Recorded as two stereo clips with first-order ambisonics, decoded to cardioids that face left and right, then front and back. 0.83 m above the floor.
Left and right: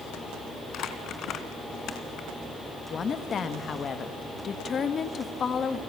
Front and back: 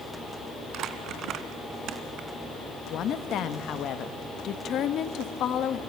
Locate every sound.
0.7 s crumpling: 135° left, 1.4 m
2.9 s a woman speaking: 35° left, 0.9 m